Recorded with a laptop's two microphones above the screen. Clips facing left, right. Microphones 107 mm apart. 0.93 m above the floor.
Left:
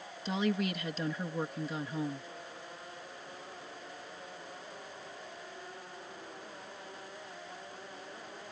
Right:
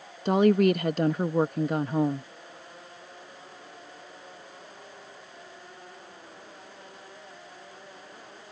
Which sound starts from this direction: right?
A woman speaking, at 0.2 s.